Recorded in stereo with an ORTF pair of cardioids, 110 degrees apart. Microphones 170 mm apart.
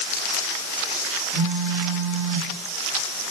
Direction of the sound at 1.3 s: 40° left.